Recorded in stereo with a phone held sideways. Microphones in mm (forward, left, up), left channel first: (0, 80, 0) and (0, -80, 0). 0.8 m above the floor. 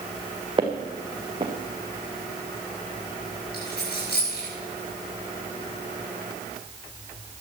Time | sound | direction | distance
0.6 | footsteps | 35° right (ahead or behind) | 1.9 m
3.5 | a dropped coin | 80° left | 8.5 m